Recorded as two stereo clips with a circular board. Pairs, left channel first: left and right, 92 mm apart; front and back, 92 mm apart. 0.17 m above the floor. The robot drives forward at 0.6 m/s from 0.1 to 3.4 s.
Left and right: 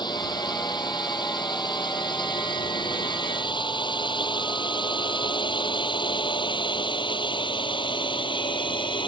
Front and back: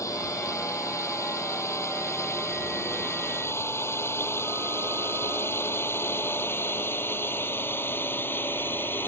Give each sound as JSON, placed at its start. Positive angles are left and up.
{"t": 0.0, "sound": "a drone", "azimuth_deg": 55}